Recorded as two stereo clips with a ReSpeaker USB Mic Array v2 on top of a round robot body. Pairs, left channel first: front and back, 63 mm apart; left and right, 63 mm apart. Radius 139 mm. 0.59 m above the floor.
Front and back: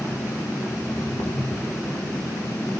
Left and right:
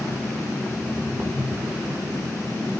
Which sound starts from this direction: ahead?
Footsteps, at 0.8 s.